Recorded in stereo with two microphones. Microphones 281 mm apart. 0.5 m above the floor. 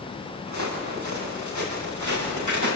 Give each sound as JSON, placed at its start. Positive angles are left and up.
{"t": 0.5, "sound": "footsteps", "side_deg": -85, "distance_m": 9.0}